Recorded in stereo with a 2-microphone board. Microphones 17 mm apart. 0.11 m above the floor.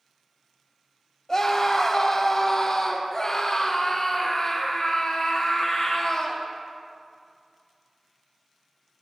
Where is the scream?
35° left (ahead or behind), 2.5 m; by 6.4 s 45° left (ahead or behind), 5 m.